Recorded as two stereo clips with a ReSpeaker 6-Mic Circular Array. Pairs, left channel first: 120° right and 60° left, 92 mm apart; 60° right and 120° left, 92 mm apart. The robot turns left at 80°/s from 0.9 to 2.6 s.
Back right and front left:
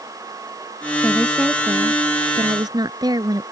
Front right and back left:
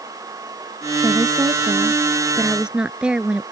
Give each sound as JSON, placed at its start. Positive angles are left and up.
{"t": 1.0, "sound": "a woman speaking", "azimuth_deg": 170}